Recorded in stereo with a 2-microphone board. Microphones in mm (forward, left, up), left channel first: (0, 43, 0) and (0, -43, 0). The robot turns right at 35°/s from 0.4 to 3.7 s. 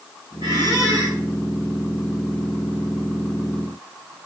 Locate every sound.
0.4 s a squeak: 65° right (ahead or behind), 5.5 m; by 1.2 s 40° right (ahead or behind), 5.5 m